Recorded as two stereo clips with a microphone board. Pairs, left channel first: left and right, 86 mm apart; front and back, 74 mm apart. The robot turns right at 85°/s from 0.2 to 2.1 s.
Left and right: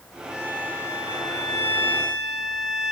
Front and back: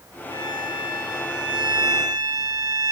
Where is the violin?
15° right, 7.5 m; by 2.9 s 140° left, 7.5 m.